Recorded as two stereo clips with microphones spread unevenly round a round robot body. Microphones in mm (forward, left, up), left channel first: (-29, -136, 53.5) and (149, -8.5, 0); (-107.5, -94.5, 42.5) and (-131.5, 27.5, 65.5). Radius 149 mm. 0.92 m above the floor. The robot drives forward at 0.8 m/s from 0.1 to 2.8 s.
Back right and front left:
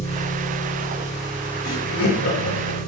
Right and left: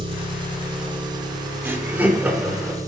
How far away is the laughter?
About 3.5 m.